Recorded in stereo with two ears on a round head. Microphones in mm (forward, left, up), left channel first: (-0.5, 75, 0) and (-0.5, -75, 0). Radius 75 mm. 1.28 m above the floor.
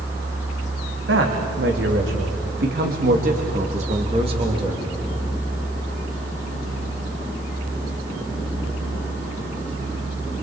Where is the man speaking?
80° right, 3 m; by 4.8 s 25° right (ahead or behind), 2.5 m.